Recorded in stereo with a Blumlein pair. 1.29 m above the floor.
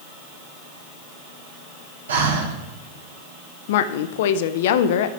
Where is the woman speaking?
55° left, 0.6 m.